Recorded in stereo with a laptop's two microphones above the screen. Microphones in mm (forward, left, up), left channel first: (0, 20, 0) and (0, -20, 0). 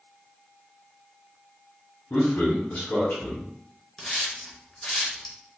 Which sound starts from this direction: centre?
A hiss, at 4.0 s.